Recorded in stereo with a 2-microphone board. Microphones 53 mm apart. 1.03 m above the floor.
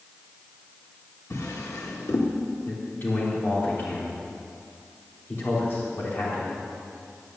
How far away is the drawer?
About 1.6 m.